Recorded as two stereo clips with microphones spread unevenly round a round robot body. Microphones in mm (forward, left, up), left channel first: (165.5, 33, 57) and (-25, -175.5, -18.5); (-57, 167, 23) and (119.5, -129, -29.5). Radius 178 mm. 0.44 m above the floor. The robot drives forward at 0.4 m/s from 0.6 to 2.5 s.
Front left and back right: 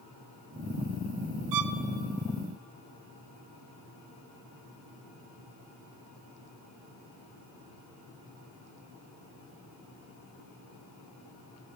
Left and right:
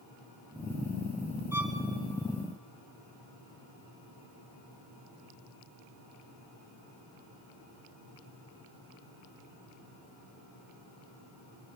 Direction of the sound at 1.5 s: 145° right.